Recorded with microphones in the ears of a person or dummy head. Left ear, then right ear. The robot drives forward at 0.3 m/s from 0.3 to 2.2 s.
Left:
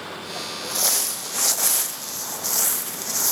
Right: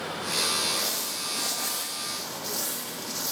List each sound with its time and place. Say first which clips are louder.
0.6 s crumpling: left 3 dB; 55° left (ahead or behind), 0.6 m; by 3.3 s 75° left (ahead or behind), 0.5 m